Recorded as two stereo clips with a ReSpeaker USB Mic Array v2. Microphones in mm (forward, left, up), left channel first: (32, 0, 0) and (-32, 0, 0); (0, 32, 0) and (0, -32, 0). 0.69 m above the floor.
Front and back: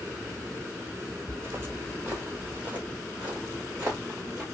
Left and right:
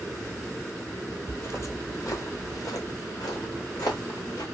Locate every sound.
1.3 s footsteps: 140° left, 1.0 m; by 4.4 s 105° left, 3.5 m